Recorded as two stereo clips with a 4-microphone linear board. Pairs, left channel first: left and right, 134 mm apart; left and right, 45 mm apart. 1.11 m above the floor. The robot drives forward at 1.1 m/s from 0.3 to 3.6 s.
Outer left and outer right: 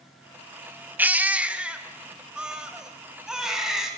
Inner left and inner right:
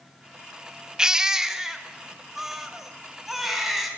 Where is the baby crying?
15° right (ahead or behind), 1.0 m; by 3.9 s 5° right (ahead or behind), 3.5 m.